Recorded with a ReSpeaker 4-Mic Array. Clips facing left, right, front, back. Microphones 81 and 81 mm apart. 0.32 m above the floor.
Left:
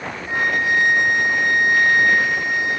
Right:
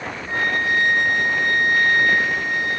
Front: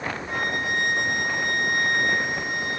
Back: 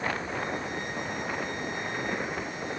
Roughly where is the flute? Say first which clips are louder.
Left 2 dB, front 6 dB; ahead.